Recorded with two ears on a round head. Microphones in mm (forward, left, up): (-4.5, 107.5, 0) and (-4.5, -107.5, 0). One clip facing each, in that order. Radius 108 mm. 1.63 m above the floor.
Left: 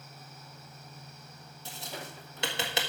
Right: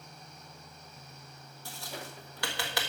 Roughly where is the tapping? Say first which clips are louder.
Left 1 dB; centre.